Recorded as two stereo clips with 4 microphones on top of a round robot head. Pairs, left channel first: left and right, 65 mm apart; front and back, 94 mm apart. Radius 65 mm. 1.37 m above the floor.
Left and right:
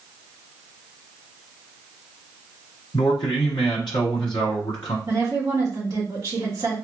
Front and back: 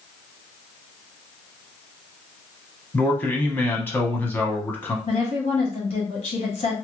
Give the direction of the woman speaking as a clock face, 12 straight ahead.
1 o'clock.